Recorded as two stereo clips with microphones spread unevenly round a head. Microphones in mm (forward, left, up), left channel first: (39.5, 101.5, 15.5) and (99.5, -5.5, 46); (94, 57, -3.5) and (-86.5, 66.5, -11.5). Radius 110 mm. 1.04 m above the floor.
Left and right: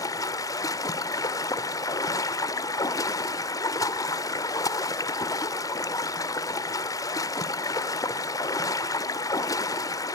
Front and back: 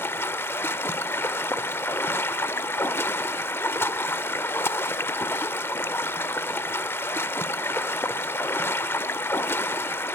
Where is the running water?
55° left, 0.8 m.